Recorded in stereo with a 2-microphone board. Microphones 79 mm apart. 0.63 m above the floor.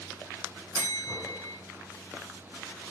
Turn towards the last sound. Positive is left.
turn(degrees=-70)  # may be behind; listen again after turning